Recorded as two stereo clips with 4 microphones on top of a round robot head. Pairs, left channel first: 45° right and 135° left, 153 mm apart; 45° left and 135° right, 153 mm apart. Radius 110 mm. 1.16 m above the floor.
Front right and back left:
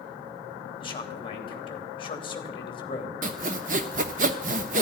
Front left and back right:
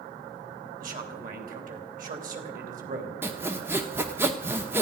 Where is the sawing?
155° left, 0.8 m.